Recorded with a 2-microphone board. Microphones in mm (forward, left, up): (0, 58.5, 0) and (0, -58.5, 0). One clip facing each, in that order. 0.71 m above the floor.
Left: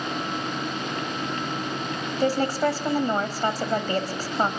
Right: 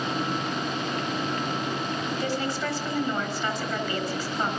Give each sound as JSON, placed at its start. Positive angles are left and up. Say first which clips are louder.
{"t": 2.2, "sound": "a woman speaking", "louder": "left 10 dB", "side_deg": 40, "distance_m": 4.5}